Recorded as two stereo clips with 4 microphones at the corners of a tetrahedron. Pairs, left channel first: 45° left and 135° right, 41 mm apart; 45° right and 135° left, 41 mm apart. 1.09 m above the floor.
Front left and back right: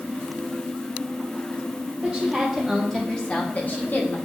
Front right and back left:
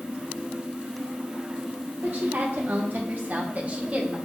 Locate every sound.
2.0 s a woman speaking: 155° left, 1.0 m; by 4.2 s 70° left, 0.9 m